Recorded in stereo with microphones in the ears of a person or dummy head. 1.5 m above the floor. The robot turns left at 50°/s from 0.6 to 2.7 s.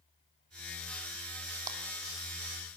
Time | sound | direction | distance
1.7 | a clap | 25° right (ahead or behind) | 3 m